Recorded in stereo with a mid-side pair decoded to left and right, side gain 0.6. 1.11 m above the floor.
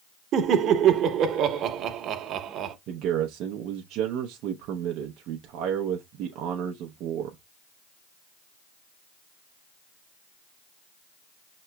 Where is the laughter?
55° right, 1.0 m.